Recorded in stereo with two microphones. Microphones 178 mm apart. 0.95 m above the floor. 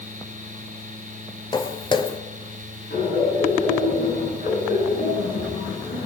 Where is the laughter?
65° left (ahead or behind), 9.5 m.